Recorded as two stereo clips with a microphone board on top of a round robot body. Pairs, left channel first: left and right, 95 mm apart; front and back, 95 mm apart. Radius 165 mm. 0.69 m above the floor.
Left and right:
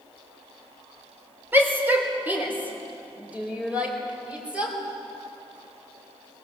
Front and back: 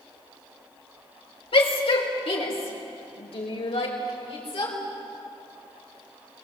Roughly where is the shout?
Ahead.